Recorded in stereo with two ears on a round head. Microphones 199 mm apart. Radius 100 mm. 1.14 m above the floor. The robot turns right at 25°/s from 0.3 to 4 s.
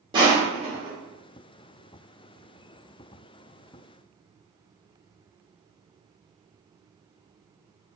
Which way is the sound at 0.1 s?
20° right (ahead or behind).